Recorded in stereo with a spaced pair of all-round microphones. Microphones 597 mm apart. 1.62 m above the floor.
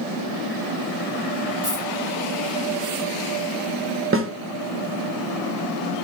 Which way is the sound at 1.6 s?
30° right (ahead or behind).